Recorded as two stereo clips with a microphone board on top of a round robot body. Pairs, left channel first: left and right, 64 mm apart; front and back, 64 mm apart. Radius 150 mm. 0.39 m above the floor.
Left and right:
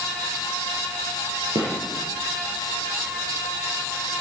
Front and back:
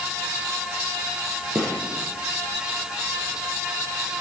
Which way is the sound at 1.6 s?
115° right.